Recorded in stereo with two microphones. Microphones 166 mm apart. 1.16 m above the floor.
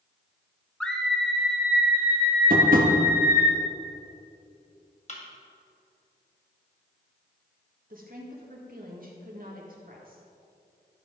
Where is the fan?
I don't hear a fan.